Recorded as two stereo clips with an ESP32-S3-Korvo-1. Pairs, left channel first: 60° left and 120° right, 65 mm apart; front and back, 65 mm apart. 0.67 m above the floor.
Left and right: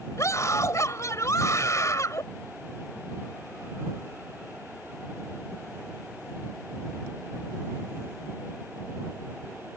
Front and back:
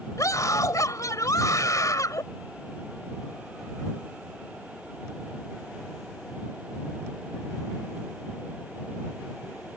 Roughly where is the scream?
Ahead left.